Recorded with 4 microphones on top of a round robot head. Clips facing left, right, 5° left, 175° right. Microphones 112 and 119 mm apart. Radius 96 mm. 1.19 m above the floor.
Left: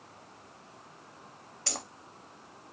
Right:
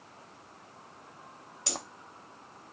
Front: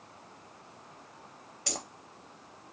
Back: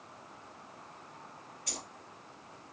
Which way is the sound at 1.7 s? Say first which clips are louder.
Right 2 dB, front 8 dB; 20° right.